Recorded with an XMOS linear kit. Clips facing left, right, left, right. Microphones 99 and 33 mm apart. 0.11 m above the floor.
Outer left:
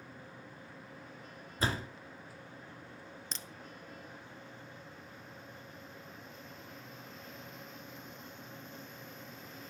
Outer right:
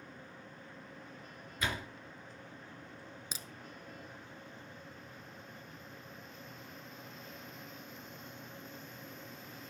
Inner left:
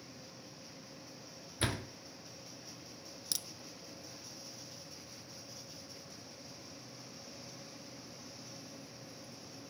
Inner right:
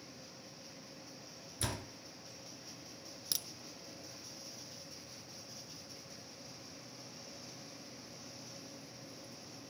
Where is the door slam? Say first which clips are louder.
Outer left 3 dB, inner left 5 dB; 35° left (ahead or behind), 1.1 m.